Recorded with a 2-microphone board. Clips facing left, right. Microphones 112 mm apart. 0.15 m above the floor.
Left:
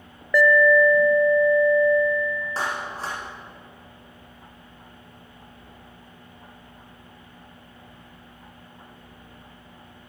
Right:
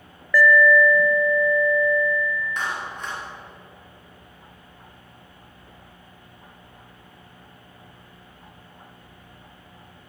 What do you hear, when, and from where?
0.3 s an alarm: 20° left (ahead or behind), 1.5 m
2.6 s a clap: 35° left (ahead or behind), 8 m